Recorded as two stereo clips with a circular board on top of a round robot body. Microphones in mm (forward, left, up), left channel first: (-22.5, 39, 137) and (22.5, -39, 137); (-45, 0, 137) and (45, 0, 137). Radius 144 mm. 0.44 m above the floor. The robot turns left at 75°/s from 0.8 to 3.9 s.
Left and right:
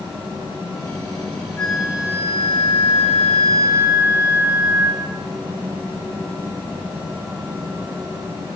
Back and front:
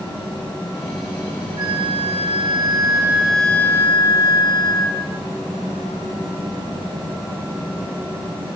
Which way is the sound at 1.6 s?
40° left.